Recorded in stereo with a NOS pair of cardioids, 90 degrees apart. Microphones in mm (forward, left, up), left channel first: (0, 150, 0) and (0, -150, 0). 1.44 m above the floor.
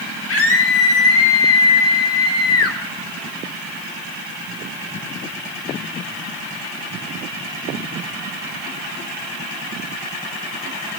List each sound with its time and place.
0.3 s a scream: 50° left, 8.5 m; by 2.8 s 55° left, 6.5 m